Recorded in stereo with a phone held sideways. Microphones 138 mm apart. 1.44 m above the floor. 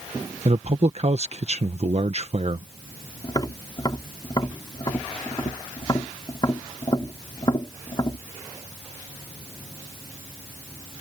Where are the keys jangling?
No keys jangling in this recording.